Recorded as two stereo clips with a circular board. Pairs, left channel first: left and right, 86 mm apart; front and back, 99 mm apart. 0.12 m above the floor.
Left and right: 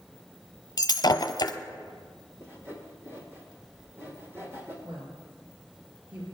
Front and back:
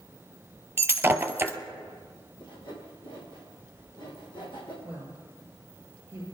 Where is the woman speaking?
110° right, 5 m.